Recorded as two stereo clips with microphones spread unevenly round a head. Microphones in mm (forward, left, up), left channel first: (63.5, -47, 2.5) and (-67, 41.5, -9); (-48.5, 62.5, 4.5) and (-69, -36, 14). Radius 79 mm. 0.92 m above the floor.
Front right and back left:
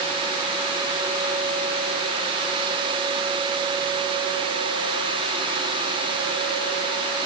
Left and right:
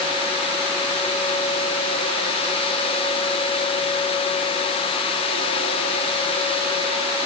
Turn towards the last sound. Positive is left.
No sound to turn to.